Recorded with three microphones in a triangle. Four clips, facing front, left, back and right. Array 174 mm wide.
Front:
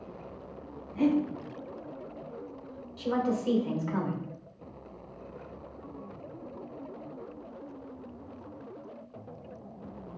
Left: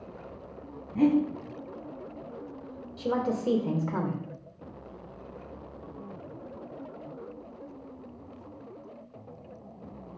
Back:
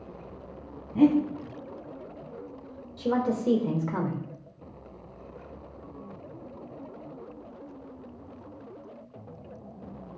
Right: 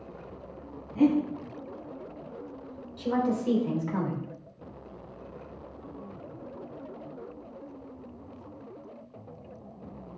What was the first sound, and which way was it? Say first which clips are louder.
Breathing: even, back 5 dB; 160° left.